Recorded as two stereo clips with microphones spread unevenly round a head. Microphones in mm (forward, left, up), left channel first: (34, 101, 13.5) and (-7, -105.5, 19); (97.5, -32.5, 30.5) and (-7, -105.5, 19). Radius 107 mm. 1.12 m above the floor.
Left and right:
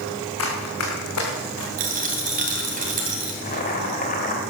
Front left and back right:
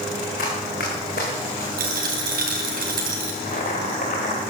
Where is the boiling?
25° left, 3 m.